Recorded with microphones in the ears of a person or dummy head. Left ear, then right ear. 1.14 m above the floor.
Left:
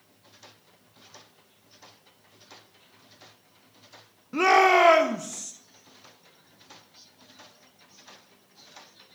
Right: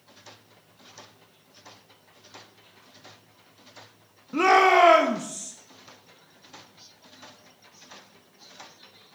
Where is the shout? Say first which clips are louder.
Right 1 dB; 15° left (ahead or behind), 0.6 m.